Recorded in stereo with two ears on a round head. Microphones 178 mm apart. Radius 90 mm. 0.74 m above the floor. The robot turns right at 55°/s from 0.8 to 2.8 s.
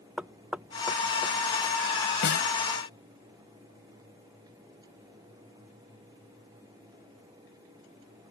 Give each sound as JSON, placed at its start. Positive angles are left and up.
{"t": 0.2, "sound": "knocking", "side_deg": -5}
{"t": 2.2, "sound": "a snare drum", "side_deg": 65}